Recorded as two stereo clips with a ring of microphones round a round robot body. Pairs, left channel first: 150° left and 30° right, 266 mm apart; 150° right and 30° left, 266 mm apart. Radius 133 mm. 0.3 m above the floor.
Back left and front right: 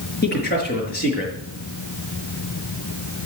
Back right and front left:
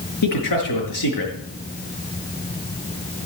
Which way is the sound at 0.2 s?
155° right.